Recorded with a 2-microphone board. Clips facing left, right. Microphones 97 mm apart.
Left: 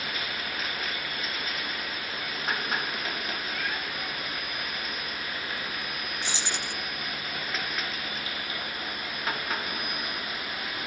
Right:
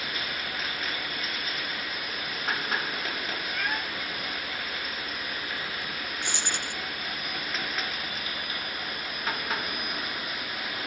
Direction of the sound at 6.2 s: 55° right (ahead or behind).